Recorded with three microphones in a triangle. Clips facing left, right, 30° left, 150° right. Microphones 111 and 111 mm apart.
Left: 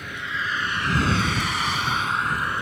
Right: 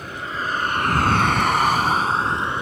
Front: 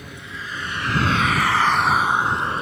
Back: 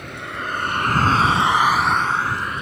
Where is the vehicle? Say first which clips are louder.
Right 3 dB, back 6 dB; 140° right; by 2.6 s 25° right.